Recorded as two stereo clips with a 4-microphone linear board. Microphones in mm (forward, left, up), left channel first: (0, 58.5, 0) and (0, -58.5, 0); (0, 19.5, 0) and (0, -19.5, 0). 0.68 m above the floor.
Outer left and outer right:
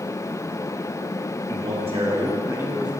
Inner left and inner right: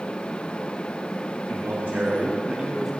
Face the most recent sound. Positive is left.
turn(degrees=-10)  # may be behind; listen again after turning